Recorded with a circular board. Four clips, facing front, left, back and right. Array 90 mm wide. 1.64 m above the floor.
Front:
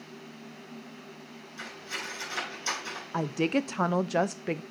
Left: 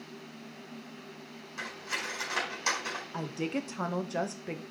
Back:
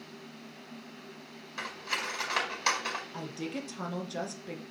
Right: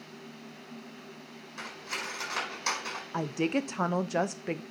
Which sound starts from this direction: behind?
Cutlery clinking, at 1.6 s.